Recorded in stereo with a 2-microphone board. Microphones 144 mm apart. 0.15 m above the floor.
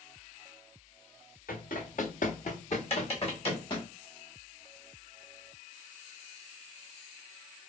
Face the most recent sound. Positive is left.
turn(degrees=45)  # may be behind; listen again after turning